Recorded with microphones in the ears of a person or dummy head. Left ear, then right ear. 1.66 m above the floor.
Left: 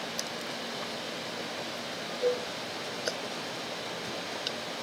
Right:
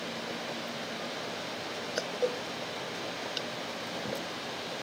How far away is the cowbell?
About 1.2 m.